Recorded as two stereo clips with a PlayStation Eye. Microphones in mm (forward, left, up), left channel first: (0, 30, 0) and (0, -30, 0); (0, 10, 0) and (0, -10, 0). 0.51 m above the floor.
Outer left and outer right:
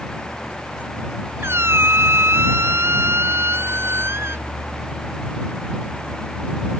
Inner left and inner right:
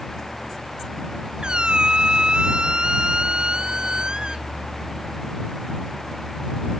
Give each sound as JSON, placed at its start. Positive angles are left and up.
{"t": 1.4, "sound": "a squeak", "side_deg": -45}